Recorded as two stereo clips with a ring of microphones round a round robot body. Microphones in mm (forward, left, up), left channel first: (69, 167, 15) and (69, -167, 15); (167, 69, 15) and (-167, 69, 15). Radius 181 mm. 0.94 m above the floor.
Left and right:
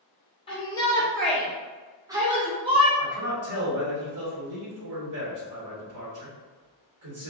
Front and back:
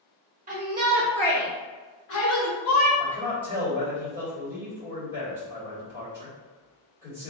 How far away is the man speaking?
About 1.6 m.